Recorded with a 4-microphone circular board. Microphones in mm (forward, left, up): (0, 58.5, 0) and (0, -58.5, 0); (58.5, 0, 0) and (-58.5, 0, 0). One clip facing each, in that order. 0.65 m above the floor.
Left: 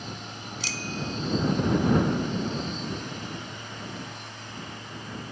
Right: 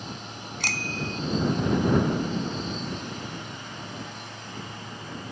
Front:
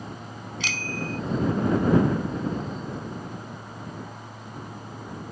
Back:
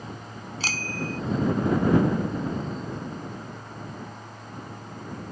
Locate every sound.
0.6 s a bicycle bell: 125° right